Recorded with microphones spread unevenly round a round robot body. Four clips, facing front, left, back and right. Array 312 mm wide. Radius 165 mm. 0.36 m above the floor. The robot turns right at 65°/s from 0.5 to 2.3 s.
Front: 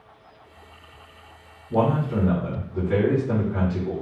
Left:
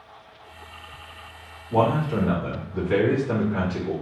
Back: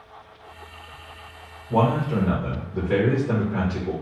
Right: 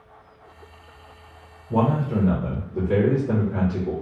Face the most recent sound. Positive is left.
turn(degrees=-100)